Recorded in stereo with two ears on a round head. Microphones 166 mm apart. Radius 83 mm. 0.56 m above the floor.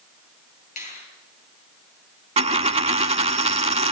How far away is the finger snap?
About 9.5 m.